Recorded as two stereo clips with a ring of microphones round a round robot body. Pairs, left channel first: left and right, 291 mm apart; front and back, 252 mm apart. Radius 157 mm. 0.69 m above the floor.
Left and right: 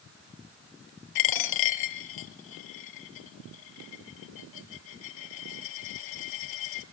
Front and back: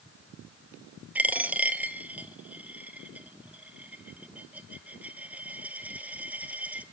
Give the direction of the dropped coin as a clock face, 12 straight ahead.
9 o'clock.